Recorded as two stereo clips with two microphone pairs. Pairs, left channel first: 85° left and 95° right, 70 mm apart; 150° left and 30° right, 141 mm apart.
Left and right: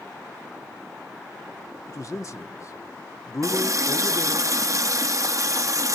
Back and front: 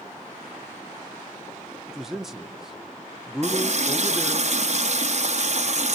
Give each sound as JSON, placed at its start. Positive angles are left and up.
{"t": 1.9, "sound": "a man speaking", "azimuth_deg": 55, "distance_m": 0.9}
{"t": 3.4, "sound": "a running tap", "azimuth_deg": -65, "distance_m": 0.7}